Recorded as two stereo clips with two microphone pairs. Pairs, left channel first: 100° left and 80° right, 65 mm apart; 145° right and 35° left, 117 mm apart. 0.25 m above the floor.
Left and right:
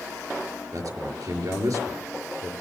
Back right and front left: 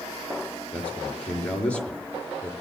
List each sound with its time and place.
0.7 s a man speaking: 65° right, 4.5 m